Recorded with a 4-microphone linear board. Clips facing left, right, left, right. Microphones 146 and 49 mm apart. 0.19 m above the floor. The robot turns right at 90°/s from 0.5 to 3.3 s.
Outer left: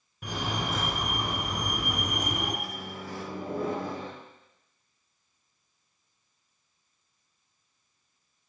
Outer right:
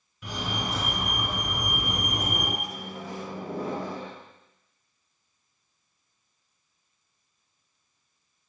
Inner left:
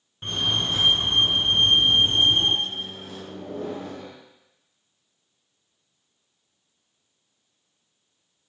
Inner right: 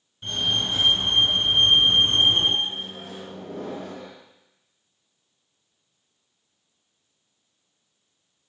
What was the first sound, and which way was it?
A fire alarm, 85° left.